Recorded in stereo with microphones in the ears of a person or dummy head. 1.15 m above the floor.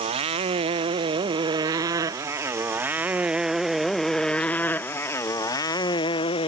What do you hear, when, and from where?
0.0 s a motorcycle: 35° right (ahead or behind); by 6.5 s 30° left (ahead or behind)